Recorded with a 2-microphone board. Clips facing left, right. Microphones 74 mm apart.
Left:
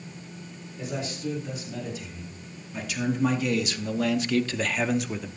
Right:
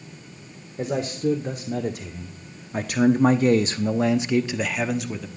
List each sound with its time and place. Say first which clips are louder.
0.8 s a man speaking: right 7 dB; 55° right (ahead or behind), 1.7 m; by 5.3 s 5° left (ahead or behind), 1.0 m